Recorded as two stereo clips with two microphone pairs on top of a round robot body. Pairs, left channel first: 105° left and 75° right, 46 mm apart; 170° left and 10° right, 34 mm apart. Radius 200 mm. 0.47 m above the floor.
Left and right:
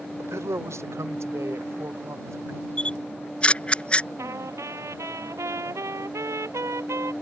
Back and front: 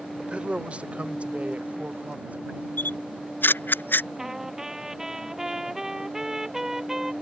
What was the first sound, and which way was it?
A man speaking, 65° right.